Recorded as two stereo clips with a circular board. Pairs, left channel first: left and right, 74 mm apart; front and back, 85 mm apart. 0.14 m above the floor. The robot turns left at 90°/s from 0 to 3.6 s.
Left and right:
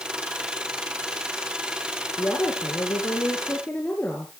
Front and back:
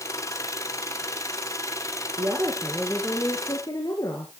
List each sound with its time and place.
2.2 s a woman speaking: 155° left, 2 m; by 4.3 s 25° left, 2 m